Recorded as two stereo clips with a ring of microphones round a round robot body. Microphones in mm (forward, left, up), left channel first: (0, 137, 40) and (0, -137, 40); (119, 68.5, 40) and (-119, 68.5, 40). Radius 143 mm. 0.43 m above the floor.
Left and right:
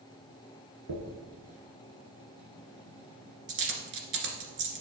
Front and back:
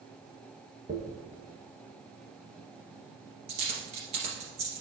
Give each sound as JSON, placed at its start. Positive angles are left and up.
{"t": 0.9, "sound": "a dropped coin", "azimuth_deg": -110, "distance_m": 1.8}